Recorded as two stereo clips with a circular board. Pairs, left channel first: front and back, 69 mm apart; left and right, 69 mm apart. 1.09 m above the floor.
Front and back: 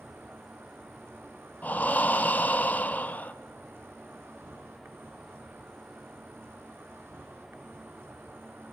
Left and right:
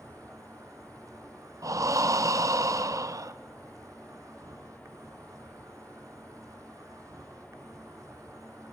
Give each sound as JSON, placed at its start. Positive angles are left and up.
{"t": 0.0, "sound": "an insect", "azimuth_deg": -130, "distance_m": 1.2}
{"t": 1.6, "sound": "breathing", "azimuth_deg": -65, "distance_m": 0.6}